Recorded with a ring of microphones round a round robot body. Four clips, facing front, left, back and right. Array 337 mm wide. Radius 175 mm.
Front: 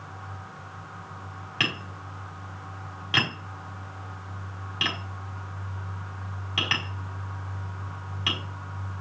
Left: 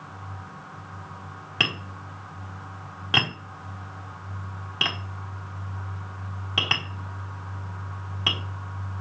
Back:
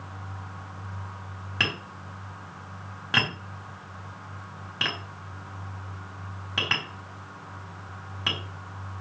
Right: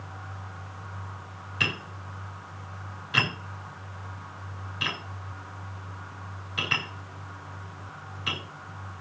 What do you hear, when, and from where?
1.6 s tapping: 105° left, 5 m